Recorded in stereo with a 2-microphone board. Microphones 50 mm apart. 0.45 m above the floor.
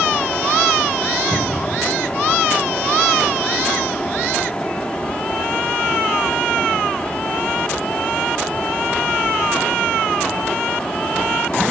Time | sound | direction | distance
1.3 | a cupboard door | 85° right | 6 m